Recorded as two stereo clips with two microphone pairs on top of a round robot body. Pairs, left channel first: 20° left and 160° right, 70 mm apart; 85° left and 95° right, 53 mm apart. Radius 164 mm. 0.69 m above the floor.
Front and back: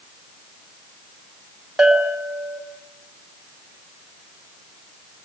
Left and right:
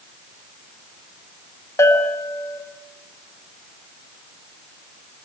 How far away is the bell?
About 4 m.